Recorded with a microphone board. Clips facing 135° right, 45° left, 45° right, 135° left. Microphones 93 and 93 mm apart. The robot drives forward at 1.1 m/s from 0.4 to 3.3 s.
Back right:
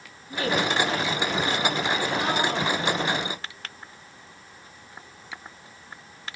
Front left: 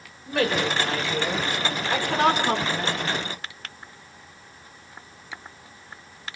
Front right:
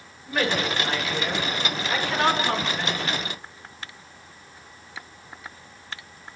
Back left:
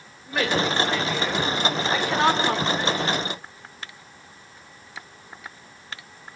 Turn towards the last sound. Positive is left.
turn(degrees=75)